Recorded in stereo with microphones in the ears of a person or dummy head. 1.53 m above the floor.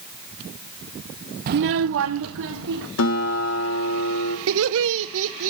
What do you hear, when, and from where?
1.5 s a child speaking: 45° right (ahead or behind), 0.6 m; by 2.9 s 70° right (ahead or behind), 2 m
3.0 s a guitar: 85° left, 2.0 m
4.5 s laughter: 75° right (ahead or behind), 0.8 m